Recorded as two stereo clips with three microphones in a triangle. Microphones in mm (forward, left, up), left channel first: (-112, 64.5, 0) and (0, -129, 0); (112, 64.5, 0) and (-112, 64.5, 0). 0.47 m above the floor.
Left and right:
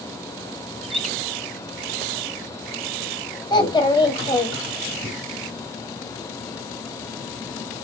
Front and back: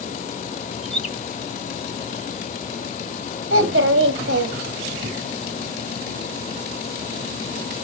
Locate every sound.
0.8 s a bird: 30° left, 0.7 m
3.5 s a child speaking: 170° right, 2 m